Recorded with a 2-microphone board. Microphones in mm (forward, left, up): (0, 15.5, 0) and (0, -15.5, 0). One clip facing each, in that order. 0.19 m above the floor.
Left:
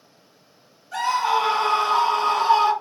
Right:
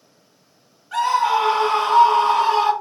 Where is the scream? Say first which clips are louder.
Right 3 dB; 45° right (ahead or behind), 1.9 m.